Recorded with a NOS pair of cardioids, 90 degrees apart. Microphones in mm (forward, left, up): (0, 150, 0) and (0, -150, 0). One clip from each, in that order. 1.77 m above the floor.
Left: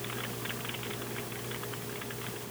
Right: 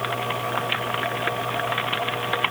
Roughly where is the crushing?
I don't hear crushing.